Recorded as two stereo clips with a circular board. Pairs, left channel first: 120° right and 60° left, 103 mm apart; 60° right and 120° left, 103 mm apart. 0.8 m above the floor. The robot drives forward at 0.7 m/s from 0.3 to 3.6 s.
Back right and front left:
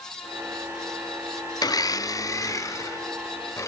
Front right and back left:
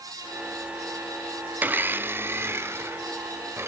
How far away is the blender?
About 0.5 m.